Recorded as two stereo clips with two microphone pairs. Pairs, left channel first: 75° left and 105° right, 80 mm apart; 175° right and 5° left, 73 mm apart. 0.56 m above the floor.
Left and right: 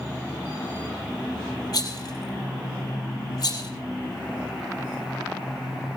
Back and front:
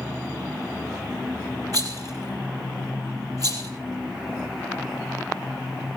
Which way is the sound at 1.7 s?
40° left.